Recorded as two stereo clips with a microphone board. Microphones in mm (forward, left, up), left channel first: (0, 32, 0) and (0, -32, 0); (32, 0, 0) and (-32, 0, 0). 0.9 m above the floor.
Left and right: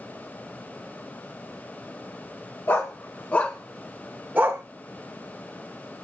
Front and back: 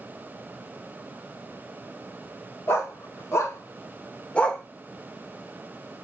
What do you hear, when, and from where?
2.7 s a dog barking: 45° left, 1.2 m; by 4.6 s 80° right, 0.7 m